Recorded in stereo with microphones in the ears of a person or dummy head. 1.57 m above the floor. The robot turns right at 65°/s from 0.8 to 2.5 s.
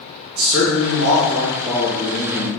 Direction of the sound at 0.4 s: 80° right.